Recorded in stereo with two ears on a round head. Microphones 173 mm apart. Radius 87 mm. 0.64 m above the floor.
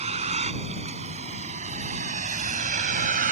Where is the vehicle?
35° right (ahead or behind); by 3.3 s 45° right (ahead or behind).